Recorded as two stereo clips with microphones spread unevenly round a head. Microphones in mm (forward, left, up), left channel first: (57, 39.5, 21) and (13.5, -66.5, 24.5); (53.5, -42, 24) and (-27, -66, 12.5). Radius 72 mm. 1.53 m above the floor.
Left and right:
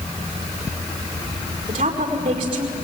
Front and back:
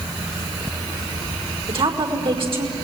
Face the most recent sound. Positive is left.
turn(degrees=-165)